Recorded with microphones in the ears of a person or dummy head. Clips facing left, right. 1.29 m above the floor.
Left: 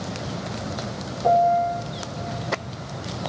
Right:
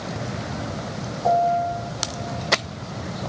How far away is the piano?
About 1.6 m.